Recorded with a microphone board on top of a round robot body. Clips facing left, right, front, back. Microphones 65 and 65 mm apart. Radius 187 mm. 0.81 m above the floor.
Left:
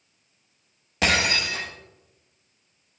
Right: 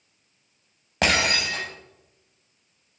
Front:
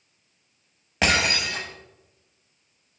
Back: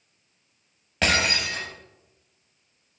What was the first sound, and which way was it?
Breaking glass, 75° right.